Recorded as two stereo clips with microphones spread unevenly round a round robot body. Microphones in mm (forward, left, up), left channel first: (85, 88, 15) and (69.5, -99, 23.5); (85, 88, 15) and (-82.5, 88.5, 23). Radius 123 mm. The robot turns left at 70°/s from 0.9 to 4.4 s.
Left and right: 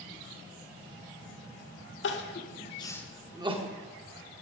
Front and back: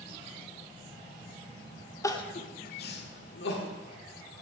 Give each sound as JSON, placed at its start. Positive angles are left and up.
{"t": 2.0, "sound": "crying", "azimuth_deg": 70, "distance_m": 1.1}